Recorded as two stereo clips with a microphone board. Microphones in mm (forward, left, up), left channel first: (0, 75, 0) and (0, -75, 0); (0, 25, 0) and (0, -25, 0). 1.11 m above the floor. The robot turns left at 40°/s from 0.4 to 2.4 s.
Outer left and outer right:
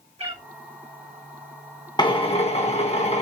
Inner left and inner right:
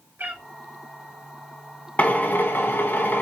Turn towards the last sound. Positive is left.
turn(degrees=45)  # may be behind; listen again after turning